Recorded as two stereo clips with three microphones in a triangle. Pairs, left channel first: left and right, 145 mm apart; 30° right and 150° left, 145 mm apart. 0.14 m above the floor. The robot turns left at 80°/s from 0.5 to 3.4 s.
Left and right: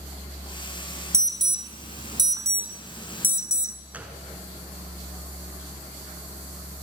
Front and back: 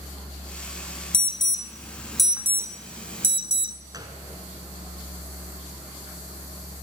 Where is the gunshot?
165° right, 1.7 m.